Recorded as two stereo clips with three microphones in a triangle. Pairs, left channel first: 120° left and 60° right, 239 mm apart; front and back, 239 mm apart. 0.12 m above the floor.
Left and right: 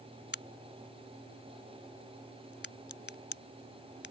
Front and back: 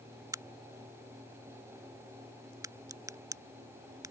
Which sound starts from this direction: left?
A crack, at 0.3 s.